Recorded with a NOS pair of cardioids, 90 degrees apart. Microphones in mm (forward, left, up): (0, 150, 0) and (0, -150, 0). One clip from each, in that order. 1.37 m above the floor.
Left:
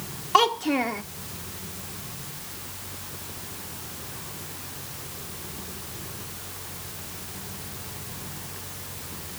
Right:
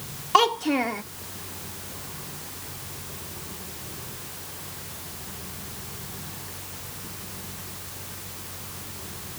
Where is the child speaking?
5° right.